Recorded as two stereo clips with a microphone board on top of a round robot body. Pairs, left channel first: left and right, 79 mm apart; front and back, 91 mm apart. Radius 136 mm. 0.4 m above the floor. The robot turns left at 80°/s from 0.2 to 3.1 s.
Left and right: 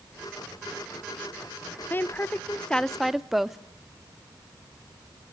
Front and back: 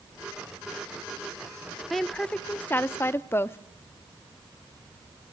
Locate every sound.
1.9 s a woman speaking: 90° left, 0.8 m; by 3.6 s 5° right, 0.8 m